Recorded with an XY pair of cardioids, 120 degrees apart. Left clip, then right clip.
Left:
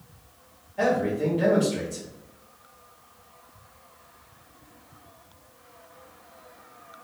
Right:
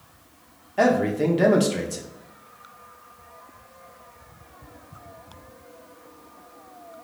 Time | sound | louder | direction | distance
0.8 | a man speaking | right 4 dB | 65° right | 0.7 m